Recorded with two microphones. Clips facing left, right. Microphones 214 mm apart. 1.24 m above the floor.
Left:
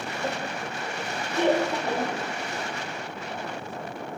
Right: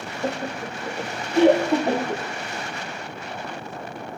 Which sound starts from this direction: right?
Laughter, at 0.2 s.